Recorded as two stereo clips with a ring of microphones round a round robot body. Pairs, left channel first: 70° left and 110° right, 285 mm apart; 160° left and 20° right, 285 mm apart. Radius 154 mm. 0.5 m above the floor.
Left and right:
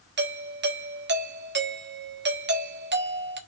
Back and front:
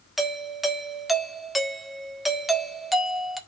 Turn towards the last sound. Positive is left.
turn(degrees=-110)